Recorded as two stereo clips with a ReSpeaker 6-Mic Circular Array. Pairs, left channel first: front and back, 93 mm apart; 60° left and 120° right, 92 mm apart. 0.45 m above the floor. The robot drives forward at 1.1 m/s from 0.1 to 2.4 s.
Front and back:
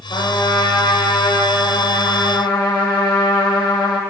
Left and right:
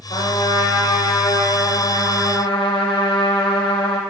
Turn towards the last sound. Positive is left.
turn(degrees=40)